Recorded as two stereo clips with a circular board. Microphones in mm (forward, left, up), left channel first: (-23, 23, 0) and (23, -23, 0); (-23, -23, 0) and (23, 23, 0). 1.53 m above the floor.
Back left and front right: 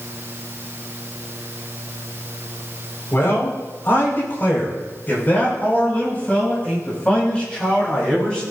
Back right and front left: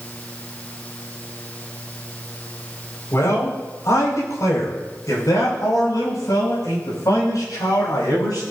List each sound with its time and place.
3.1 s a man speaking: 175° right, 5.5 m; by 8.4 s 150° right, 8 m